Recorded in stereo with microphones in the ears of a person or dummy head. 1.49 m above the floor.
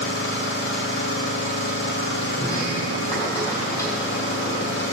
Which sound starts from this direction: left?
An engine running, at 0.0 s.